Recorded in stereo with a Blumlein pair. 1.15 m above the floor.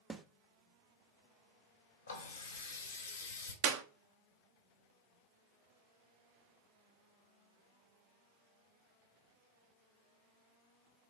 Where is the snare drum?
10° right, 0.5 m.